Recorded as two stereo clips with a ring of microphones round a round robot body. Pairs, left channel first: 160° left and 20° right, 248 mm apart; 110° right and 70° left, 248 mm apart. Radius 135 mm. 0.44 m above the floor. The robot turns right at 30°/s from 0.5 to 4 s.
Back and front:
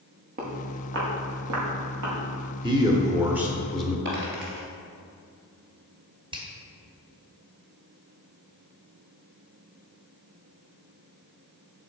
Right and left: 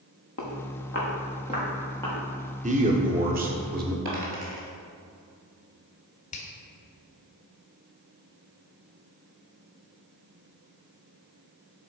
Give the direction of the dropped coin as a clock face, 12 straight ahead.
11 o'clock.